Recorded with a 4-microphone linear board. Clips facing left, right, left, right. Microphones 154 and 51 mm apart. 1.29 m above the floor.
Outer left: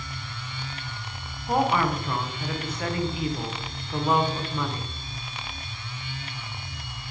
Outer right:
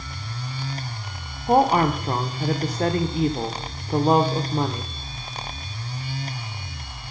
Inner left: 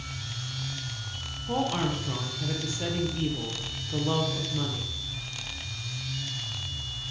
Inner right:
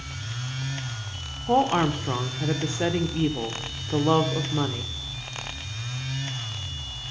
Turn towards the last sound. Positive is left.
turn(degrees=-40)  # may be behind; listen again after turning